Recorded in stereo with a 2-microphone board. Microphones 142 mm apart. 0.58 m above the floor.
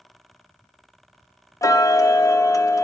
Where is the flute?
I don't hear a flute.